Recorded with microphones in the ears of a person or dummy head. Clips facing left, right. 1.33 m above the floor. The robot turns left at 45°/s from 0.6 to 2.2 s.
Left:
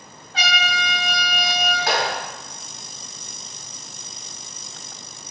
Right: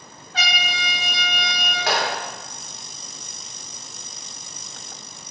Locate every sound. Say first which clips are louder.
0.3 s a trumpet: left 3 dB; 120° right, 1.9 m; by 1.8 s 175° right, 1.9 m
1.9 s a clap: right 1 dB; 50° right (ahead or behind), 1.3 m; by 2.1 s 40° right (ahead or behind), 1.3 m